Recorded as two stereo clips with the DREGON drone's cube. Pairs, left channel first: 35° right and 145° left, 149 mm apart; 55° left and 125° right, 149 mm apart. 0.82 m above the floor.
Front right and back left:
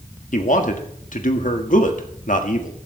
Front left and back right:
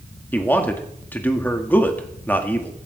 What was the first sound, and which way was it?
A man speaking, 20° right.